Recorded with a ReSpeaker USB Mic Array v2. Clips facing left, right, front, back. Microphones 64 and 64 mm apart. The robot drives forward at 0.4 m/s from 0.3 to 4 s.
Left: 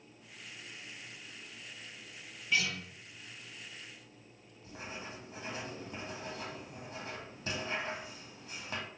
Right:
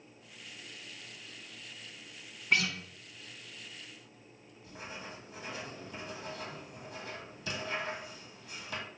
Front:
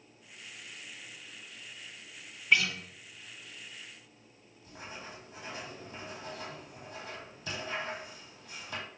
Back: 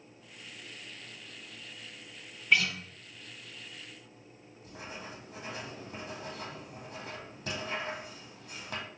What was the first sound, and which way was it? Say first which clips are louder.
A guitar: right 3 dB, even; 90° right.